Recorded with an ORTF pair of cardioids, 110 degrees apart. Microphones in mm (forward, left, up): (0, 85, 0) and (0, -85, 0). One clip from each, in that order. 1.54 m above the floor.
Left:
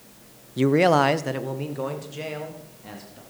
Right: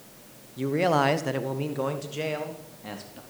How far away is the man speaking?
About 0.8 m.